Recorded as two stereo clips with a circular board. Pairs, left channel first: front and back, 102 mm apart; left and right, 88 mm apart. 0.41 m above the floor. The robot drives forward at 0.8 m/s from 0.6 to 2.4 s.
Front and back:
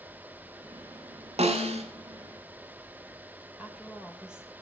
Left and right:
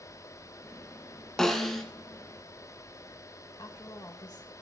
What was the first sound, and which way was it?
A snare drum, 175° left.